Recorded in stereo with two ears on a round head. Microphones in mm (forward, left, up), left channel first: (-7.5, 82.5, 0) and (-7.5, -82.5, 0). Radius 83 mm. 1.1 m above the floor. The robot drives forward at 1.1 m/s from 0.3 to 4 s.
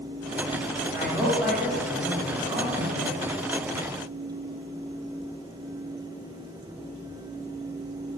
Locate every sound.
0.9 s a man speaking: 15° right (ahead or behind), 6.5 m; by 3.2 s 25° right (ahead or behind), 4 m